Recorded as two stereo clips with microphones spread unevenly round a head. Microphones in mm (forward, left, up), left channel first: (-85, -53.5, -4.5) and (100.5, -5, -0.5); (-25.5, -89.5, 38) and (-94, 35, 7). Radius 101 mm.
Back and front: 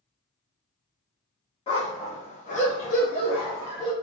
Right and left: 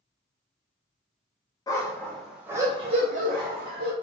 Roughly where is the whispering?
No whispering in this recording.